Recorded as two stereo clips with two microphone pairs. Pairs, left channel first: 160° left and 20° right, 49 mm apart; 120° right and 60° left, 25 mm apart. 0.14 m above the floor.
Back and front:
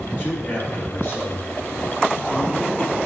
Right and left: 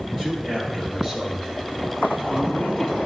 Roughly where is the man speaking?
Behind left.